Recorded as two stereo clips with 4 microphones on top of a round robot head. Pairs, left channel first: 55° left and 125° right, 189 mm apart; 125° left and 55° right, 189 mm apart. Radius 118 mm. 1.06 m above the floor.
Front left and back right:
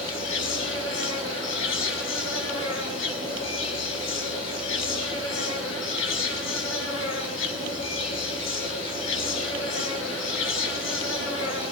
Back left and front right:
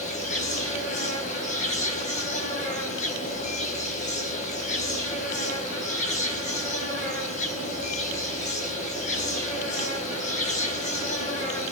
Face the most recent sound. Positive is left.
turn(degrees=75)